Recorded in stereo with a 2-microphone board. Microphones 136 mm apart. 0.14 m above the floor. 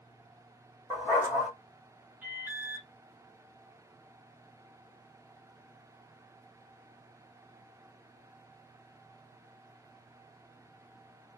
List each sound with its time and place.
0.9 s a dog barking: 15° left (ahead or behind), 1.5 m
2.2 s an alarm: 15° right (ahead or behind), 1.0 m